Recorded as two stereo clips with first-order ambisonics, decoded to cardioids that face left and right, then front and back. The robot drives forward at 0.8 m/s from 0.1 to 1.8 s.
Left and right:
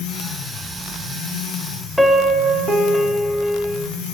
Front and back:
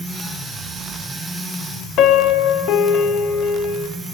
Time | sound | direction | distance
2.0 | a piano | straight ahead | 0.5 m